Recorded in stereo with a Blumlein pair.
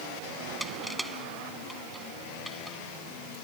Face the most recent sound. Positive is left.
turn(degrees=-5)